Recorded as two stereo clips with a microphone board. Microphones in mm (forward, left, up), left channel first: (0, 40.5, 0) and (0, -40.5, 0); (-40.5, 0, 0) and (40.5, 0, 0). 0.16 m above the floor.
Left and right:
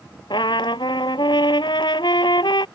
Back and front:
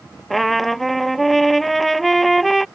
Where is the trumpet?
90° left.